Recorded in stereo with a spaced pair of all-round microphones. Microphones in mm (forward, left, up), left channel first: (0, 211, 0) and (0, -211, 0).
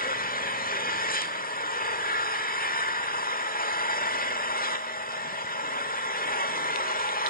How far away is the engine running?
About 1.2 m.